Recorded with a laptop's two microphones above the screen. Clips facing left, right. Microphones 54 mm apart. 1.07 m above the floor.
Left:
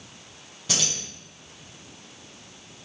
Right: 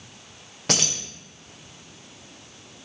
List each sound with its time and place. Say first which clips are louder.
0.7 s keys jangling: right 4 dB; 55° right (ahead or behind), 0.6 m